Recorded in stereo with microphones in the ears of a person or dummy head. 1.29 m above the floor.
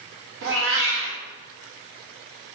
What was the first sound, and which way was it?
A cat meowing, 60° right (ahead or behind).